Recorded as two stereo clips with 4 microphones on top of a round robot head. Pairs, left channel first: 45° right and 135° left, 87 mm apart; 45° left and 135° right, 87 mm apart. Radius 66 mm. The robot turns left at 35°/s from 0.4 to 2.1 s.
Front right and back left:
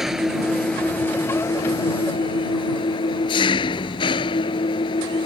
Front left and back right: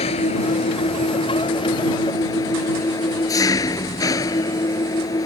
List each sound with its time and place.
0.0 s an engine running: 50° left; by 5.3 s 10° right